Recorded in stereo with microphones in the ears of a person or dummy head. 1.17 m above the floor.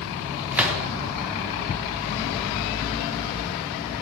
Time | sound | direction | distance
0.5 | a gunshot | 10° right (ahead or behind) | 0.8 m